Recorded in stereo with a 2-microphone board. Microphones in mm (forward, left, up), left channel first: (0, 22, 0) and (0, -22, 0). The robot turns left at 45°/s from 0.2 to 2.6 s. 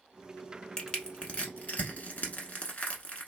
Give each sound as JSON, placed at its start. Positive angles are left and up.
{"t": 0.8, "sound": "crushing", "side_deg": 15, "distance_m": 0.9}